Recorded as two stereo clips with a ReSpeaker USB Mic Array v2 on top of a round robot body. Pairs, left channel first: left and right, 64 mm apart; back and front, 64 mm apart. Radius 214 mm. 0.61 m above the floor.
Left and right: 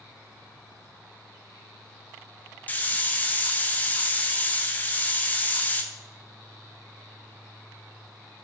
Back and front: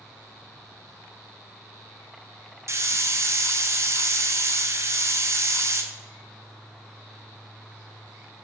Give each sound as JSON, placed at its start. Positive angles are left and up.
{"t": 2.7, "sound": "a hiss", "azimuth_deg": 30, "distance_m": 0.7}